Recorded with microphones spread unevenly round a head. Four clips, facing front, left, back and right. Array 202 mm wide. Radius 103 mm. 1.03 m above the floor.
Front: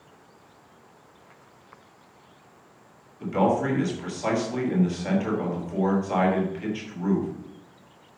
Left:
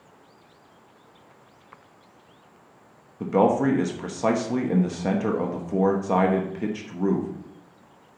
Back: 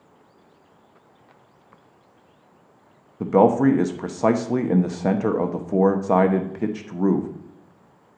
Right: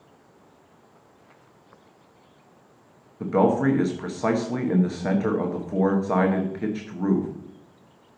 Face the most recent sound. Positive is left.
turn(degrees=165)